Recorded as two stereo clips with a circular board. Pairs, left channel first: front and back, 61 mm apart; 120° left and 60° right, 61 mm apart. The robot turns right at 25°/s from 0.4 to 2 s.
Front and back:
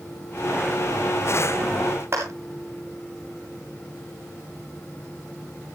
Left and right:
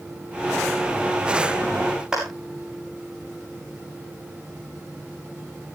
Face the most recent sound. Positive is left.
turn(degrees=-135)